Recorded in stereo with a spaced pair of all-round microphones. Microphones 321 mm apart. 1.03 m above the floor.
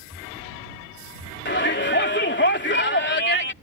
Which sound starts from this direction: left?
A shout, at 1.4 s.